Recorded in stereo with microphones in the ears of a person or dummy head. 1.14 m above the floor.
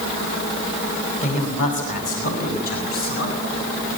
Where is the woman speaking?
35° left (ahead or behind), 6 m; by 3.6 s 45° left (ahead or behind), 7.5 m.